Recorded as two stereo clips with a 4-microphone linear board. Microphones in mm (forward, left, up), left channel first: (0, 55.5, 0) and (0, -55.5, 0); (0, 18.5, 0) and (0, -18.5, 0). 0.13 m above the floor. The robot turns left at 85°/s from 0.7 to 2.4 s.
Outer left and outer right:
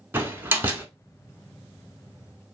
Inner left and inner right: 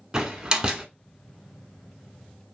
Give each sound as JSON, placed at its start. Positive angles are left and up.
{"t": 0.1, "sound": "a door slam", "side_deg": -20, "distance_m": 0.7}